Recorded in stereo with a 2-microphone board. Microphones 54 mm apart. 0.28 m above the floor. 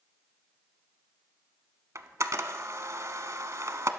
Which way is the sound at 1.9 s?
70° right (ahead or behind).